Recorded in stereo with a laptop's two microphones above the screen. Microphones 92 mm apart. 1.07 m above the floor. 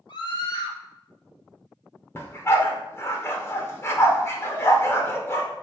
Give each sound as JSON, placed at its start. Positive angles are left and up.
{"t": 0.1, "sound": "a scream", "side_deg": 60, "distance_m": 1.5}
{"t": 2.1, "sound": "a dog barking", "side_deg": 30, "distance_m": 0.9}